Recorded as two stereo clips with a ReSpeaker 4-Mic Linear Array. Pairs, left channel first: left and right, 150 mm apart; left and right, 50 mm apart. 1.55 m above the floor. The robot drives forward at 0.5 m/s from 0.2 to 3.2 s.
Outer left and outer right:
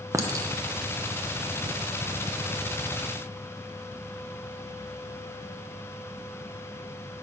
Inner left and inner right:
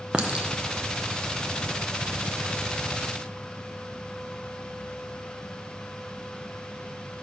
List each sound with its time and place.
0.1 s a clink: 20° right (ahead or behind), 0.7 m; by 1.8 s 30° right (ahead or behind), 0.5 m